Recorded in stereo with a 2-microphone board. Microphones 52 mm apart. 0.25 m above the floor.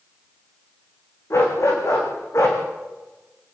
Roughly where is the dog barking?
Left.